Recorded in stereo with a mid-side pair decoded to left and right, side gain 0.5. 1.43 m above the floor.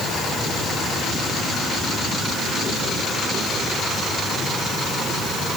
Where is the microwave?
I don't hear a microwave.